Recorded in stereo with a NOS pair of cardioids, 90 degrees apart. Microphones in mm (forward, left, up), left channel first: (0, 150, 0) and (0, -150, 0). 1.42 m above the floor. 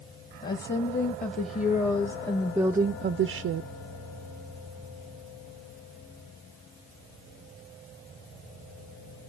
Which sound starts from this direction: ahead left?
A woman speaking, at 0.4 s.